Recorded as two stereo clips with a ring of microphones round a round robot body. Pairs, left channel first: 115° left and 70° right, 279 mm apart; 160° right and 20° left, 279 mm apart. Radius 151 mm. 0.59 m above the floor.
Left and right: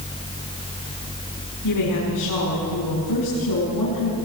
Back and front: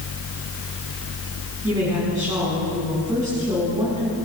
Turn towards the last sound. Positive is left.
turn(degrees=100)